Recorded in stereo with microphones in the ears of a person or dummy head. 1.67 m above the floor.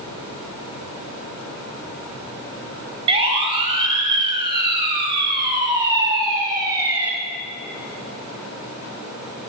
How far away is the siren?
About 8.5 m.